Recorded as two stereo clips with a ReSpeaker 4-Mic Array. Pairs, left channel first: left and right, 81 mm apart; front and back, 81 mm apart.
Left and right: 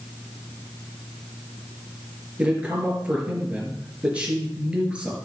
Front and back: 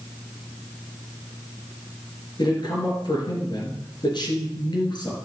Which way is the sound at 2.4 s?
15° right.